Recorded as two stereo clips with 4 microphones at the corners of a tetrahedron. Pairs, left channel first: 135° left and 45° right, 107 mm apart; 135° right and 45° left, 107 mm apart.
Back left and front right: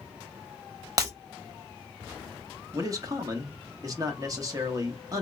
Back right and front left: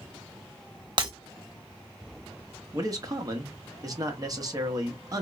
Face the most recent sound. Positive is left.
turn(degrees=0)